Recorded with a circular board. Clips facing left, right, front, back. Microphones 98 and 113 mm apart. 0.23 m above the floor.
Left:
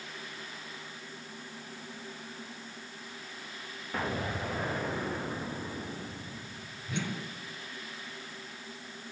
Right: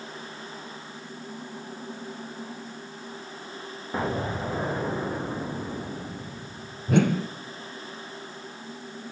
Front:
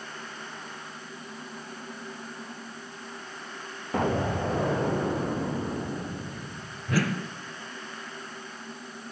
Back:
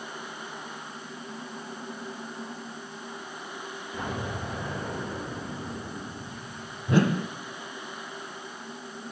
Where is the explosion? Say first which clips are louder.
Right 5 dB, front 8 dB; 20° right, 3.5 m.